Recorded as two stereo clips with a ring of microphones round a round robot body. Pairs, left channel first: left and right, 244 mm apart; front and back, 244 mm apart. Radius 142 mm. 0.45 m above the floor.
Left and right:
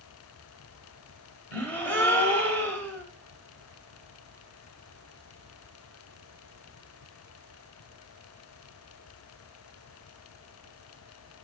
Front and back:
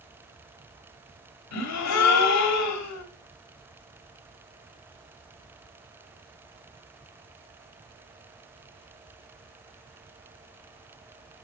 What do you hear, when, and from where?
1.5 s a gasp: 5° left, 1.0 m